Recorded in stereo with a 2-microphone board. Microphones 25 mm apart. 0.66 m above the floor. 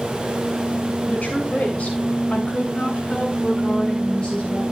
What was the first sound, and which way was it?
A woman speaking, 65° left (ahead or behind).